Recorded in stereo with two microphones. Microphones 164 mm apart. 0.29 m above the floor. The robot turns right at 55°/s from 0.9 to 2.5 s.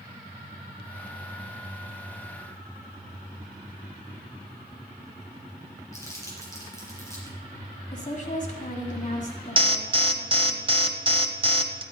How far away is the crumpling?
About 4.5 m.